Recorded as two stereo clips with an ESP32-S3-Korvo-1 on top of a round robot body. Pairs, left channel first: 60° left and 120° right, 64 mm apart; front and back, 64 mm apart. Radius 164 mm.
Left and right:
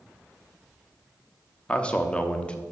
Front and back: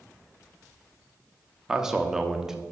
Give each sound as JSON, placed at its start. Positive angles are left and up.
{"t": 1.7, "sound": "a man speaking", "azimuth_deg": 110, "distance_m": 0.9}